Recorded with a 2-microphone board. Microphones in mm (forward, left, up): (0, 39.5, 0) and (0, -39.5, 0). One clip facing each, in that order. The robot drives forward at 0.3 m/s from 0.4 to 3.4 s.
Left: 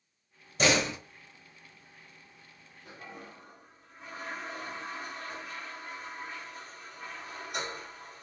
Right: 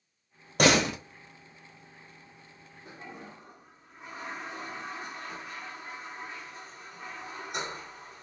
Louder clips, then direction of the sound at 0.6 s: Right 4 dB; 60° right (ahead or behind).